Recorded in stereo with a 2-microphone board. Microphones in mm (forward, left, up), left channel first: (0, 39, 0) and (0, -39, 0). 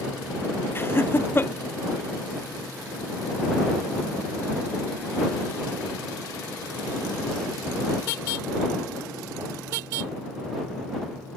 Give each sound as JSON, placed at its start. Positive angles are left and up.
{"t": 0.8, "sound": "laughter", "side_deg": 30}